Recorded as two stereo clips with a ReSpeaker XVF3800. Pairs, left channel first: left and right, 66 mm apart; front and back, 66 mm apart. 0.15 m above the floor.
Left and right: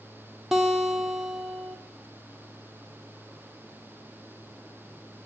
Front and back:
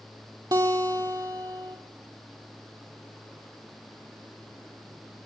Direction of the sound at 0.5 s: 175° right.